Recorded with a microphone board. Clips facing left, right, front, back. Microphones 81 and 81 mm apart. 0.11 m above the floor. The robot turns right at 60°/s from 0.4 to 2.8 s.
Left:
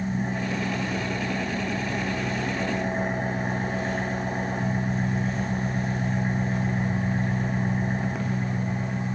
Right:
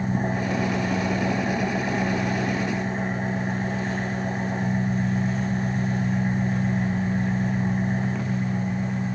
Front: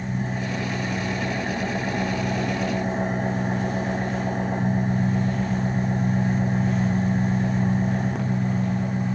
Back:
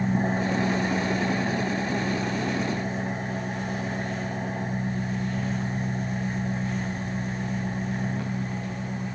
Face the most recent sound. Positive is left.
turn(degrees=15)